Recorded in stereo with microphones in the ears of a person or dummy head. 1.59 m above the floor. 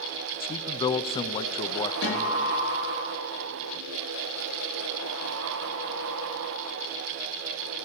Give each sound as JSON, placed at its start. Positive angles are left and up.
{"t": 0.4, "sound": "a man speaking", "side_deg": 25, "distance_m": 0.6}
{"t": 2.0, "sound": "a guitar", "side_deg": 65, "distance_m": 8.5}